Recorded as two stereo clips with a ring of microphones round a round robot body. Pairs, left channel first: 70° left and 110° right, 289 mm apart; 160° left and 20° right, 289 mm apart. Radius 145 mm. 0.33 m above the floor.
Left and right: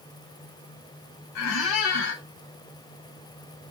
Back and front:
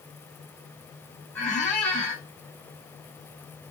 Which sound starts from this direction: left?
A squeak, at 1.4 s.